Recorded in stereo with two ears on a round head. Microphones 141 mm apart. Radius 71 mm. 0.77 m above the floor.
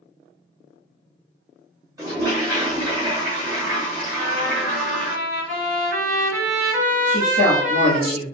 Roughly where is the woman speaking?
Right.